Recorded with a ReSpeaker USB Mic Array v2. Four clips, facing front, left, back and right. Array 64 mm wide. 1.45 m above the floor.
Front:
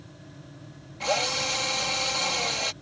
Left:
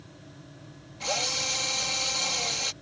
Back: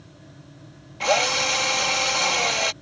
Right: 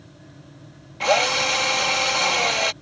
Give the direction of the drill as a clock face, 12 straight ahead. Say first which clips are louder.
Right 13 dB, back 6 dB; 4 o'clock.